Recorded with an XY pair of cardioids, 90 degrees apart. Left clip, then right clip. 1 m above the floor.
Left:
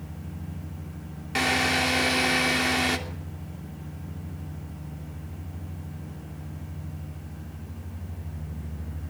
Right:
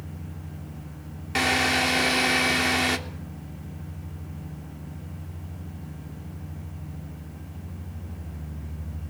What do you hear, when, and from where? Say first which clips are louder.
1.4 s a drill: right 1 dB; 15° right, 3 m